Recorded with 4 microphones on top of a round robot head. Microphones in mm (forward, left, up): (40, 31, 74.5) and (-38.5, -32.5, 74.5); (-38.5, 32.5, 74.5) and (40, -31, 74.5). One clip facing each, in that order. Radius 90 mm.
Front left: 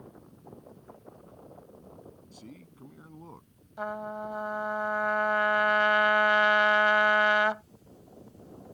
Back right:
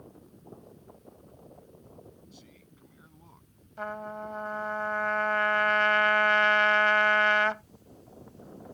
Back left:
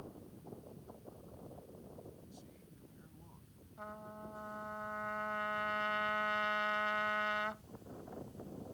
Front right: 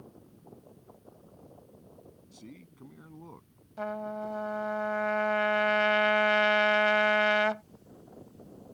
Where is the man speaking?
10° right.